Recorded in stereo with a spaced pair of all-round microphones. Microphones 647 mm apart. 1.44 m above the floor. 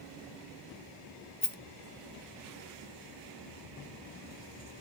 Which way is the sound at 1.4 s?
25° left (ahead or behind).